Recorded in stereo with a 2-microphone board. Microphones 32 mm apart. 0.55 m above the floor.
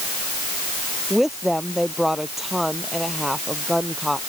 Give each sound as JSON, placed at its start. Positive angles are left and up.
{"t": 1.1, "sound": "a woman speaking", "side_deg": -5}